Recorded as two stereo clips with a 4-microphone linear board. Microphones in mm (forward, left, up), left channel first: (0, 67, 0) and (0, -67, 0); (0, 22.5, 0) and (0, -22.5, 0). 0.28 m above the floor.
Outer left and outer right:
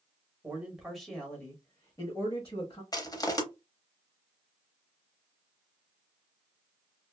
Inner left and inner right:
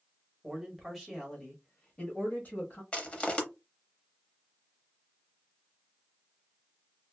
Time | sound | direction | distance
0.4 | a man speaking | 15° right (ahead or behind) | 1.0 m
2.9 | crushing | 30° left (ahead or behind) | 0.6 m